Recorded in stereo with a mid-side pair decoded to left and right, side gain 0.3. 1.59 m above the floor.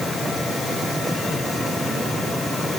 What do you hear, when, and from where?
Only background noise.